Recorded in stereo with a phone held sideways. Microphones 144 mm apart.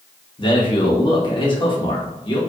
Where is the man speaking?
35° left (ahead or behind), 1.2 m.